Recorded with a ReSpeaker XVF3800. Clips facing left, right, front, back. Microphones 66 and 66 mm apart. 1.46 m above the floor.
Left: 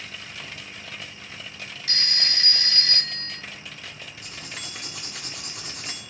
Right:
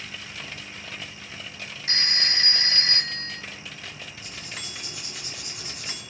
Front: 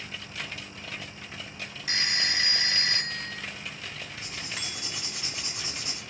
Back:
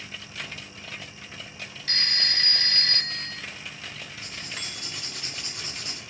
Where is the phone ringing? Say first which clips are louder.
Right 2 dB, front 1 dB; 65° right, 0.6 m.